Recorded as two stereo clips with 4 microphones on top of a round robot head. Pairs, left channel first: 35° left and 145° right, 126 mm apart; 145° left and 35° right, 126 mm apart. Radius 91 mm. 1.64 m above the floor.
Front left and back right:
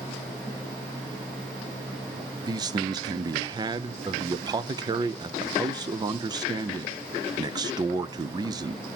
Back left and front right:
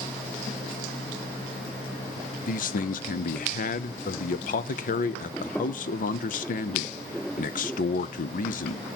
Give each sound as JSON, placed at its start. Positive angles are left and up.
{"t": 2.5, "sound": "a man speaking", "azimuth_deg": 160, "distance_m": 0.7}